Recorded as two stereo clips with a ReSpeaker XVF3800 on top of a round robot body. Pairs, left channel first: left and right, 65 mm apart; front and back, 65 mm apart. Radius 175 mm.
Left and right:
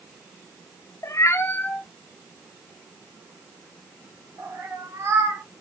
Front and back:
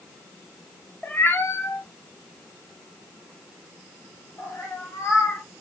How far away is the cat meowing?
About 0.7 m.